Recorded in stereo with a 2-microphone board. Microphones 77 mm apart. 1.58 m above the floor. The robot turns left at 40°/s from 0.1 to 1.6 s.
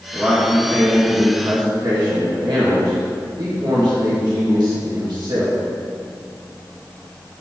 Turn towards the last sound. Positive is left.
turn(degrees=-70)